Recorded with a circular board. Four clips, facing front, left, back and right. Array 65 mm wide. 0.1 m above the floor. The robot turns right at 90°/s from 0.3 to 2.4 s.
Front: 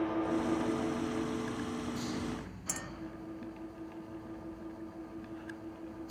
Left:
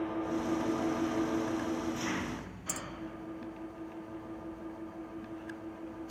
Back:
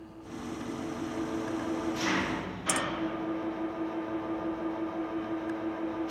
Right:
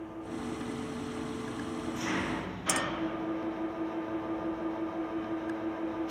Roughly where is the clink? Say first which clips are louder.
Right 11 dB, back 14 dB; behind right.